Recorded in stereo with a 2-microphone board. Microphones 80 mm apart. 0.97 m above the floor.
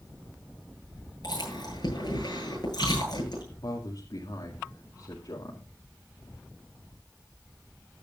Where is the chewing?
60° left (ahead or behind), 9 m.